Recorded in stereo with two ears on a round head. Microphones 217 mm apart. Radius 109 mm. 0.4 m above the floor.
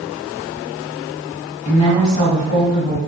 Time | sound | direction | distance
1.6 | a woman speaking | 25° left (ahead or behind) | 1.9 m